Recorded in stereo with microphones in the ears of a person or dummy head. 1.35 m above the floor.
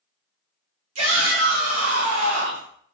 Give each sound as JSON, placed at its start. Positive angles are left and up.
{"t": 0.9, "sound": "a shout", "side_deg": -85, "distance_m": 1.7}